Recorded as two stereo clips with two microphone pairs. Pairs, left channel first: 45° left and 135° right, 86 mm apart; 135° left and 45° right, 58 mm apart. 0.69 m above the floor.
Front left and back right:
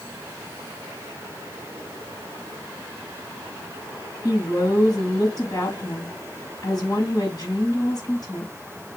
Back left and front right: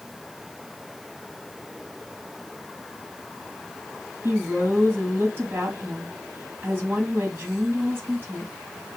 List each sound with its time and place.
4.2 s a woman speaking: 5° left, 5 m